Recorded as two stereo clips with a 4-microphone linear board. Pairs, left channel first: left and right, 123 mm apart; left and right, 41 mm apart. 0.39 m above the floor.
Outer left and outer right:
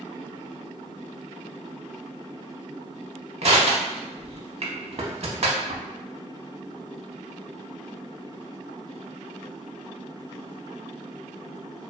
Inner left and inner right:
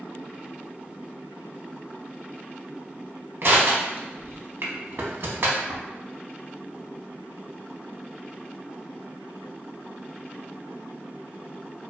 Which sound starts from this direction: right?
Crushing, at 3.4 s.